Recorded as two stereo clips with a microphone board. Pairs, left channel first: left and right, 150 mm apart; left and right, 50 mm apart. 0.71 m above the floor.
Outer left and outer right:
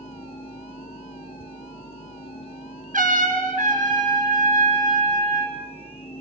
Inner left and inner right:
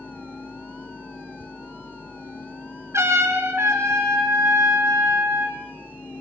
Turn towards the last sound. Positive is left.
turn(degrees=-60)  # may be behind; listen again after turning